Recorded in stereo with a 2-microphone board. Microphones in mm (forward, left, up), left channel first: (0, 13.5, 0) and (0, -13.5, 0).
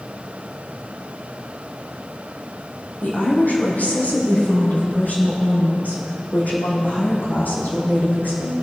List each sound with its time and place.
3.0 s a woman speaking: 75° left (ahead or behind), 4.5 m; by 8.5 s 80° left, 7 m